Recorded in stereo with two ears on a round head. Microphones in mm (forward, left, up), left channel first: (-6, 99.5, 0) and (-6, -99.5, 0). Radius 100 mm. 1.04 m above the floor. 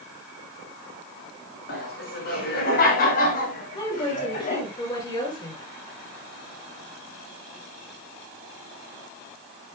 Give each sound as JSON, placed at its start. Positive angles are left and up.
{"t": 1.7, "sound": "laughter", "side_deg": 45, "distance_m": 6.0}
{"t": 3.8, "sound": "a woman speaking", "side_deg": 20, "distance_m": 8.0}